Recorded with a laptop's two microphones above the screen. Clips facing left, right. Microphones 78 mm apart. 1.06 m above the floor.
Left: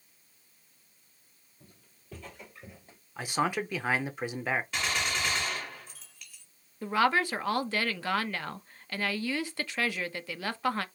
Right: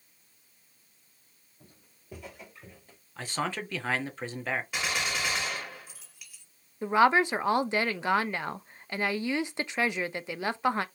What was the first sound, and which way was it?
Footsteps, 30° right (ahead or behind).